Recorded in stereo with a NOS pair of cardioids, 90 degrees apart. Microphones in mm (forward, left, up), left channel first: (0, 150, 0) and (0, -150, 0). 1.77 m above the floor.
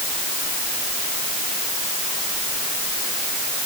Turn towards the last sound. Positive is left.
No sound to turn to.